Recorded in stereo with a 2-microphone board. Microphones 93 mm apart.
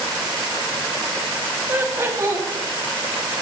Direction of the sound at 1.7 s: 25° right (ahead or behind).